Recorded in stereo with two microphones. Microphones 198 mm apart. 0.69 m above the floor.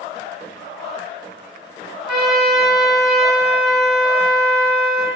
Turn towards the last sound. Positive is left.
turn(degrees=0)  # may be behind; listen again after turning